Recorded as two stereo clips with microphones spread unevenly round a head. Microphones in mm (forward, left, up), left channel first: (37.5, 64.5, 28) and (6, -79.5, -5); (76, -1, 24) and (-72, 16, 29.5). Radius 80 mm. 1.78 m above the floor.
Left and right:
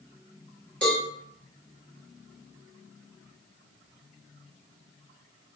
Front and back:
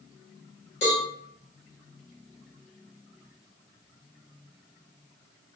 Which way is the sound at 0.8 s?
10° left.